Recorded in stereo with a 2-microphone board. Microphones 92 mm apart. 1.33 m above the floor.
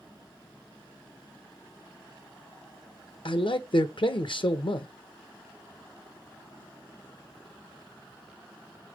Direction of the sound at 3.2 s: 60° left (ahead or behind).